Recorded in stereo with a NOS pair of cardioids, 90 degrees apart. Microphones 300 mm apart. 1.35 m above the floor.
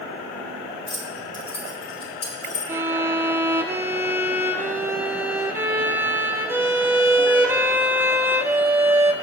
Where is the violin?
5° right, 0.6 m.